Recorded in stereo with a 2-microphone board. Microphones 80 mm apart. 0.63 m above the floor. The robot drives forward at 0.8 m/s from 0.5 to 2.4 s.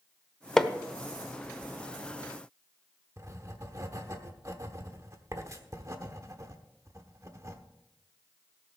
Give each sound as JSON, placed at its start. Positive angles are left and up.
{"t": 0.6, "sound": "hammering", "side_deg": 5, "distance_m": 0.9}
{"t": 3.2, "sound": "writing", "side_deg": -40, "distance_m": 1.0}